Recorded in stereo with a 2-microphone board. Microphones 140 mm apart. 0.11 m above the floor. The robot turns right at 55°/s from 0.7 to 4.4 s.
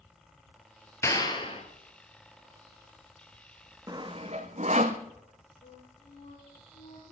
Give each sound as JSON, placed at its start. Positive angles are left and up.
{"t": 1.0, "sound": "a clap", "azimuth_deg": 25, "distance_m": 1.9}
{"t": 3.9, "sound": "sawing", "side_deg": -25, "distance_m": 1.3}
{"t": 5.6, "sound": "a flute", "side_deg": 50, "distance_m": 4.0}